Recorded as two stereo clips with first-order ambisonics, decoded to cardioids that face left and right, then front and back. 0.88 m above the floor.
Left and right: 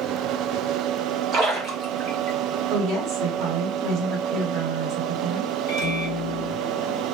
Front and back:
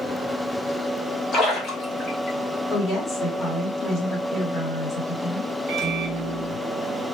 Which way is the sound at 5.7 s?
120° left.